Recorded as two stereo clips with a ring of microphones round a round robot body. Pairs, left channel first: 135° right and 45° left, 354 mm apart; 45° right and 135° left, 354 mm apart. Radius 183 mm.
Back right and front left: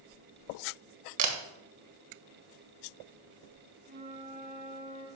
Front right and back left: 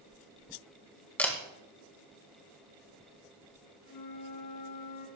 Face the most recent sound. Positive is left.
turn(degrees=-20)